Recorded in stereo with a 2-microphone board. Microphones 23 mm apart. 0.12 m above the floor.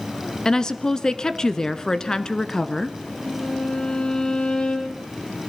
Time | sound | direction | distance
0.5 | a woman speaking | 25° left (ahead or behind) | 1.4 m
3.2 | a violin | 40° left (ahead or behind) | 4.5 m